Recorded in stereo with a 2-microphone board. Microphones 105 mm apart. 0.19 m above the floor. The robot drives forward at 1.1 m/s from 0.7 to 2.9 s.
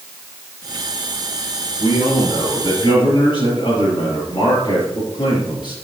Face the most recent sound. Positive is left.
turn(degrees=45)  # may be behind; listen again after turning